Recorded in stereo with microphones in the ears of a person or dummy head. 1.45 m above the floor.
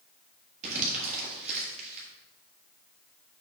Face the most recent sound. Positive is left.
turn(degrees=-45)  # may be behind; listen again after turning